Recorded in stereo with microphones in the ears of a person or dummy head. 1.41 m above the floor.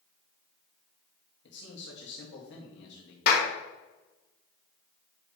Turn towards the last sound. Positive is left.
turn(degrees=60)  # may be behind; listen again after turning